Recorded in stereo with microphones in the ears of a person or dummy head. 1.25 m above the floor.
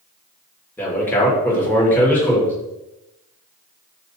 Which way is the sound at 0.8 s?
10° left (ahead or behind).